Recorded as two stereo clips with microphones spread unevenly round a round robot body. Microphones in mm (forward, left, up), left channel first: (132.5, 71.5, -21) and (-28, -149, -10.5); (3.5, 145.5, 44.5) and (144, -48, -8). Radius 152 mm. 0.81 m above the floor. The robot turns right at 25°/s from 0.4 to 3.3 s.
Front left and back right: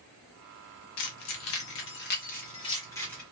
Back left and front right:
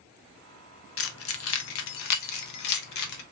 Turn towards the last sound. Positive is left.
turn(degrees=145)